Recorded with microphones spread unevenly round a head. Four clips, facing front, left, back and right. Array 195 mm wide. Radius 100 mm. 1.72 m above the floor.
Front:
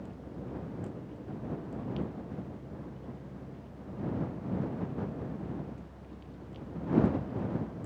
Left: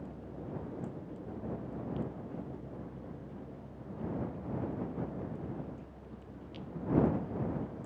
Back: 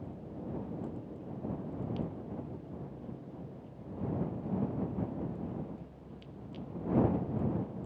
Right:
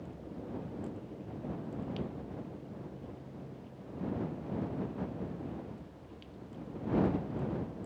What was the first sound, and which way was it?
Only background noise.